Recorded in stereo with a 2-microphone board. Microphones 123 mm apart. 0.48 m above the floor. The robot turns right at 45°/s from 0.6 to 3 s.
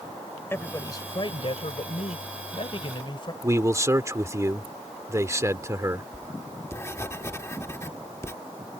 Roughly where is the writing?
Left.